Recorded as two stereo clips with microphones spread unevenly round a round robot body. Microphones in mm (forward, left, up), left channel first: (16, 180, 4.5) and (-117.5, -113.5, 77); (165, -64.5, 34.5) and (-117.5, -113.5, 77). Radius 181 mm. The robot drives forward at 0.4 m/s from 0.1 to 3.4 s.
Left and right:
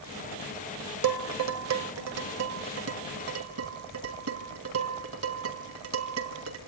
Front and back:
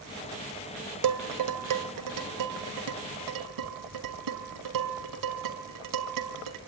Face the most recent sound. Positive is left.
turn(degrees=-165)